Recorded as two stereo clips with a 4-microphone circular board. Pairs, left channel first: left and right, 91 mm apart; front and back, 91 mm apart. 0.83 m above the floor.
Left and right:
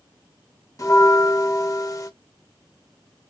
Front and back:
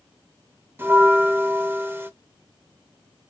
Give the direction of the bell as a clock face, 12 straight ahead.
8 o'clock.